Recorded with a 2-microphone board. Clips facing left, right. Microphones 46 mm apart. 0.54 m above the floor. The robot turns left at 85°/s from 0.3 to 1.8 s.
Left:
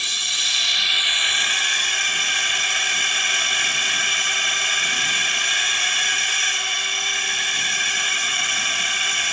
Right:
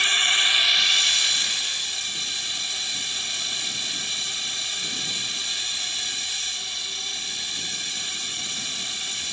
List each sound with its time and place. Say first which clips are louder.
0.0 s a drone: right 4 dB; 140° right; by 9.3 s 95° left